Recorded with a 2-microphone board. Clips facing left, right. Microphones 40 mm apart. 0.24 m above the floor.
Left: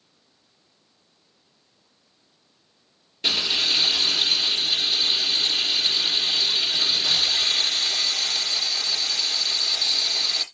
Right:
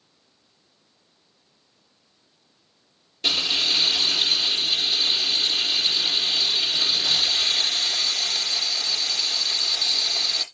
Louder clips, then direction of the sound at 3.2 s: Even; 10° left (ahead or behind).